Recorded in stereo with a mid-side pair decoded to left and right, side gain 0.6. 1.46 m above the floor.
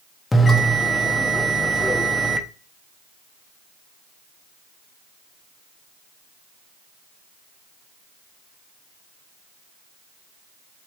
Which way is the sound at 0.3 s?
15° left.